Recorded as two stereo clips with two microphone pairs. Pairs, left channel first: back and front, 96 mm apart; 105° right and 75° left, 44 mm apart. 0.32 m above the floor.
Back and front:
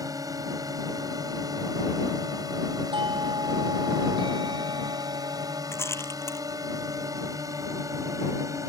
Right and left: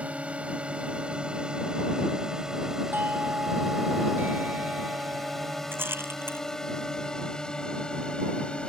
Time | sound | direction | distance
0.0 | a drone | 30° left | ?
2.9 | a doorbell | 35° left | ?
5.7 | a rattle | 115° left | ?